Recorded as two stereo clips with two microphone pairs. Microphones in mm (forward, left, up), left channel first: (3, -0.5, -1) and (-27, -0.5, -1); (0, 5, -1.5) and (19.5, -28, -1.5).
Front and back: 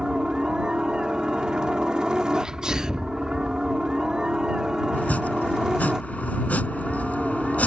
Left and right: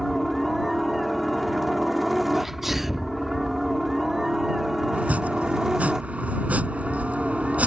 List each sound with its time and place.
0.0 s a helicopter: 150° right; by 7.7 s 125° right
2.3 s a sneeze: 135° right
4.9 s chopping: 15° right